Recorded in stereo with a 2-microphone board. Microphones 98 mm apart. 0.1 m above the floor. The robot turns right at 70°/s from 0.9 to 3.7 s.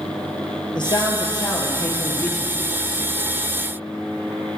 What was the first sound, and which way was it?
A man speaking, 75° left.